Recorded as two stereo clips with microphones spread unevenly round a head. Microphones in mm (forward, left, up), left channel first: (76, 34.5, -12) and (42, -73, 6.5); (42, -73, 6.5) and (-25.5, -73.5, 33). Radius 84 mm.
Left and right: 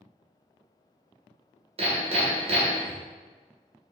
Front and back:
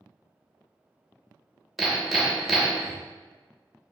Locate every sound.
1.8 s hammering: 105° right, 1.0 m